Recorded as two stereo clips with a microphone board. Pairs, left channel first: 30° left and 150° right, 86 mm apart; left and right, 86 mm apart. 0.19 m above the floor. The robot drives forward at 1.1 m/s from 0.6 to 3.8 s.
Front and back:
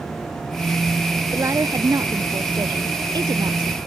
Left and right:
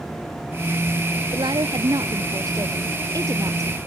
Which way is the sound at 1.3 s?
100° right.